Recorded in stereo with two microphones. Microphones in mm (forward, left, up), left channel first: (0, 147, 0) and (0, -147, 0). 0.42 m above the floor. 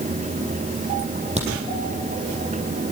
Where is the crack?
20° right (ahead or behind), 6 m.